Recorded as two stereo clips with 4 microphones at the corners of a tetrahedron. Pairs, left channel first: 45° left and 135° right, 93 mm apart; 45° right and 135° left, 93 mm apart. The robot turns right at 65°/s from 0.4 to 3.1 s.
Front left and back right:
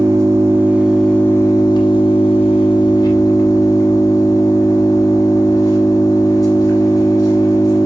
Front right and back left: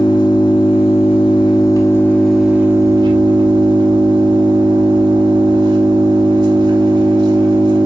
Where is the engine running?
80° right, 1.1 m; by 7.9 s 95° left, 1.1 m.